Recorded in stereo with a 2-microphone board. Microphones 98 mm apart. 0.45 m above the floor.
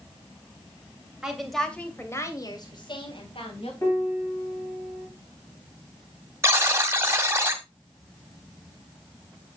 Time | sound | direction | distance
1.2 | a woman speaking | 10° right (ahead or behind) | 2.5 m
3.8 | a piano | 30° left (ahead or behind) | 5 m
6.4 | a buzzer | 25° right (ahead or behind) | 1.8 m